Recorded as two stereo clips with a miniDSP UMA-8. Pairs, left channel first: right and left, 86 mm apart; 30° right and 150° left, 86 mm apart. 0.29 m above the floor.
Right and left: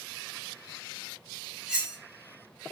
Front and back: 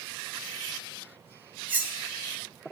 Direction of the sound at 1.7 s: 155° left.